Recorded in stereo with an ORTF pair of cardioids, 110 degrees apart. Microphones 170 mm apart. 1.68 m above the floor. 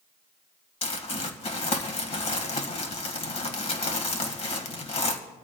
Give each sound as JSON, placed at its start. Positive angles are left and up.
{"t": 0.8, "sound": "crumpling", "azimuth_deg": 40, "distance_m": 1.7}